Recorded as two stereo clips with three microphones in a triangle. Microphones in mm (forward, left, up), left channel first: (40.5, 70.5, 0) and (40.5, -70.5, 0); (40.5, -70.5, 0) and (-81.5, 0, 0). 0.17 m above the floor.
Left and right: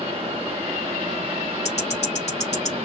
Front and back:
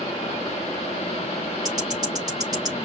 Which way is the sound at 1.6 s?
95° left.